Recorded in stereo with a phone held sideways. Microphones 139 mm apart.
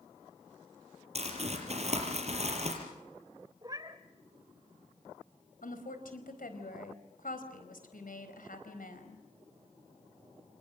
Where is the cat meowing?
30° right (ahead or behind), 2.5 m.